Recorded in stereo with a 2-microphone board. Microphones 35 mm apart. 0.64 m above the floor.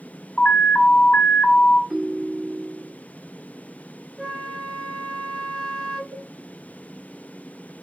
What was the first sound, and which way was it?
An alarm, 40° left (ahead or behind).